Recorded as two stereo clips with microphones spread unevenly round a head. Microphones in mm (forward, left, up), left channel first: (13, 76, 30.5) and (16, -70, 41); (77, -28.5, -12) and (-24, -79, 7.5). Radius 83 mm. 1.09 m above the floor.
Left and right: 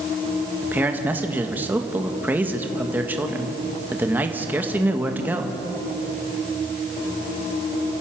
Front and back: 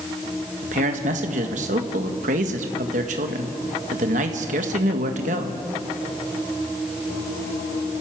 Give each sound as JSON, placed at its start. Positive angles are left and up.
{"t": 0.6, "sound": "a man speaking", "azimuth_deg": -165, "distance_m": 1.7}